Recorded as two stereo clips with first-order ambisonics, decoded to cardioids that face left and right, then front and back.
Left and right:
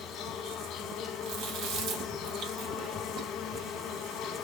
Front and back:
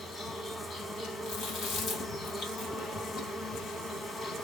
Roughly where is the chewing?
Ahead right.